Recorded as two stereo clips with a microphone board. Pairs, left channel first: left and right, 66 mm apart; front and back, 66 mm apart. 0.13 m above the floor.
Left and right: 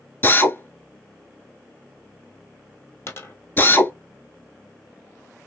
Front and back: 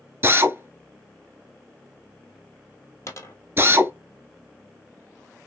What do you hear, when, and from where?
0.2 s a drill: 135° left, 0.8 m
3.1 s a dropped coin: 40° left, 1.3 m